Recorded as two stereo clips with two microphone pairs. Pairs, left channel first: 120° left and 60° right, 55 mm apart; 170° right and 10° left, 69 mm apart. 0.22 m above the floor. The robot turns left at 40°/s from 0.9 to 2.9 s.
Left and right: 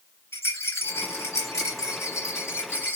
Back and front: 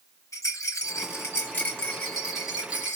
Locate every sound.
0.3 s a rattle: 150° left, 2.5 m; by 3.0 s 70° left, 2.5 m